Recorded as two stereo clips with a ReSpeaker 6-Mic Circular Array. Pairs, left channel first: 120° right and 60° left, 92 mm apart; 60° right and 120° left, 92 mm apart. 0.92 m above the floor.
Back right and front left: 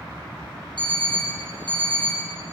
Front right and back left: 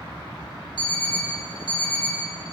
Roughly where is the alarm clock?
Right.